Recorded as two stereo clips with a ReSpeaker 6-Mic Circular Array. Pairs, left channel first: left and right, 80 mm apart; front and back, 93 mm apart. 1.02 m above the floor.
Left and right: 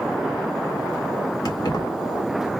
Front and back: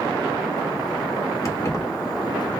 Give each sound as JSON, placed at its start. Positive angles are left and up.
{"t": 1.4, "sound": "keys jangling", "azimuth_deg": 55, "distance_m": 1.1}